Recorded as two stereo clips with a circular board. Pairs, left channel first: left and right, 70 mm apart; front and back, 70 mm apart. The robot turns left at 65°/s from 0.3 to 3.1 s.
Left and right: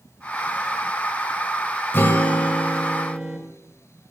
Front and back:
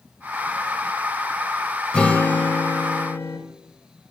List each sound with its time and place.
1.9 s a guitar: 65° left, 0.9 m; by 3.4 s 10° right, 0.9 m